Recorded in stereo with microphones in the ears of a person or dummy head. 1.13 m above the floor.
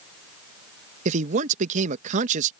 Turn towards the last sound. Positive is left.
turn(degrees=-45)  # may be behind; listen again after turning